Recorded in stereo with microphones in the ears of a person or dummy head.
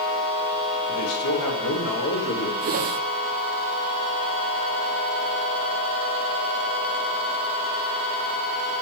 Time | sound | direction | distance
0.9 | a man speaking | 85° left | 2.5 m
2.6 | a whoosh | 45° right (ahead or behind) | 0.5 m